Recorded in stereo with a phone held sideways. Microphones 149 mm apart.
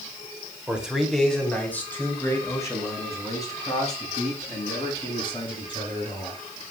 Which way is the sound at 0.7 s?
10° right (ahead or behind).